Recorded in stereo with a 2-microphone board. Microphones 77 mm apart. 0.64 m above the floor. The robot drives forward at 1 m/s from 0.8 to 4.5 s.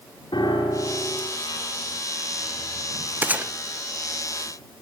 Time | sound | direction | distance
0.3 | a piano | 70° left (ahead or behind) | 7 m
3.2 | a gunshot | 25° right (ahead or behind) | 0.9 m